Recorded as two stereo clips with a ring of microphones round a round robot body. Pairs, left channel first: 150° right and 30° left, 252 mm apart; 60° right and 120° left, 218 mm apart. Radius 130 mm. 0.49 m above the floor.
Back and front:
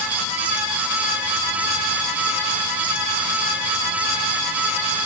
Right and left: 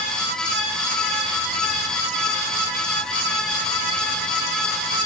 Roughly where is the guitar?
I don't hear a guitar.